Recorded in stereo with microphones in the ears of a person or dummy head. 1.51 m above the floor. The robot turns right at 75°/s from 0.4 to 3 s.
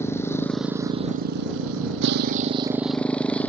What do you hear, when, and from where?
0.0 s a motorcycle: 15° left (ahead or behind); by 3.5 s 5° left (ahead or behind)